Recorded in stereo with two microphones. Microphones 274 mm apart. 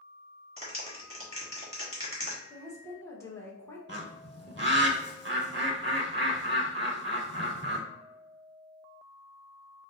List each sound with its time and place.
0.6 s a clap: 20° right (ahead or behind), 1.5 m
2.5 s a woman speaking: 10° left (ahead or behind), 1.0 m
3.9 s a bird: 45° right (ahead or behind), 0.8 m